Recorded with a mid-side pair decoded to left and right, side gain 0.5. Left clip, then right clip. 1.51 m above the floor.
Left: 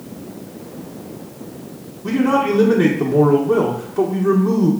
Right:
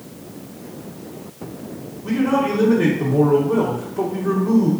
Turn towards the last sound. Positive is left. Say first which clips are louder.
# left 3 dB
turn(degrees=40)